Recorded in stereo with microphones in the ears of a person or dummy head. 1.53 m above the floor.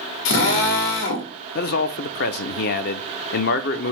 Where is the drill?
70° left (ahead or behind), 1.6 m.